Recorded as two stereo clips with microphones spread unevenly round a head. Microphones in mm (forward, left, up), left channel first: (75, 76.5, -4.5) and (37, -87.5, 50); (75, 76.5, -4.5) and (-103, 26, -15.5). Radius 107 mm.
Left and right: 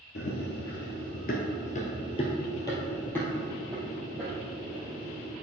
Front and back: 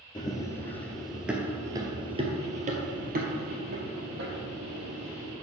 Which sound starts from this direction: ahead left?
Running footsteps, at 0.1 s.